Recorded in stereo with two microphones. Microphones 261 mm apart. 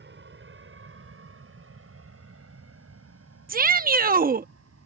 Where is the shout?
35° right (ahead or behind).